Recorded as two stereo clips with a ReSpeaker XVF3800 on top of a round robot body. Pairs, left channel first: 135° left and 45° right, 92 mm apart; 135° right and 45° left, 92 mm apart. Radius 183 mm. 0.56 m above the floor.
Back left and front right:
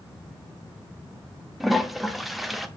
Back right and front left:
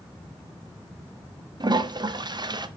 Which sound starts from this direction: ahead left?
A toilet flushing, at 1.6 s.